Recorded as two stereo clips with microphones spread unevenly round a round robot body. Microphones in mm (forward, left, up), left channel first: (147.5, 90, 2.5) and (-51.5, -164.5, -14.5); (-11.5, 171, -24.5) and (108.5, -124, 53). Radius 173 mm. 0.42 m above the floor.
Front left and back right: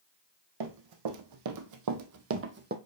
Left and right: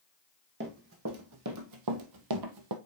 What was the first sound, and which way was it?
Running footsteps, 125° right.